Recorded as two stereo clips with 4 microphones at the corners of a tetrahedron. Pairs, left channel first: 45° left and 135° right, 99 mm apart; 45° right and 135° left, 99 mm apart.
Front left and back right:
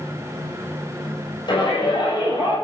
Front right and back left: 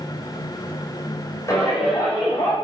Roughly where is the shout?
Ahead.